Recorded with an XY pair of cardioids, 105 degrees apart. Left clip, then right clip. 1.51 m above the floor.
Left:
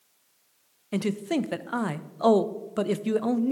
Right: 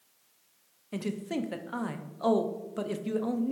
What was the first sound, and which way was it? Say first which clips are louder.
A man speaking: left 6 dB; 45° left.